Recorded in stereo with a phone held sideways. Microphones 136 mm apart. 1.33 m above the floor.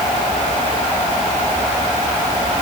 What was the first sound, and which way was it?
Only background noise.